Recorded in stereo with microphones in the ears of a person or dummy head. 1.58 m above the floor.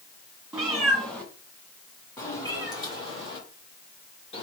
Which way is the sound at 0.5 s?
Centre (ahead or behind).